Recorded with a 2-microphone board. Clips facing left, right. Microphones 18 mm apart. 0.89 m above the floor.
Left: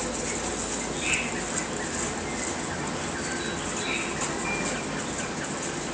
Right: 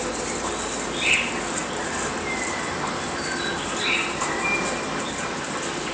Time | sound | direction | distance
0.0 | an insect | 40° right (ahead or behind) | 1.2 m